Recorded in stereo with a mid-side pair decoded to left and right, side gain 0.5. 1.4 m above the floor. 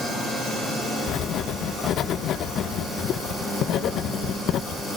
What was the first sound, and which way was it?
Writing, 60° left.